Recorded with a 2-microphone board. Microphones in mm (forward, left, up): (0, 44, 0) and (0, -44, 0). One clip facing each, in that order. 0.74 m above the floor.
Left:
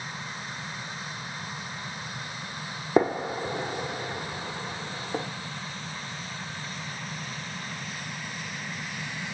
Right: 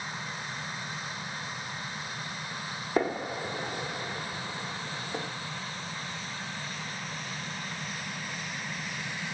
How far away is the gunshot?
About 0.9 m.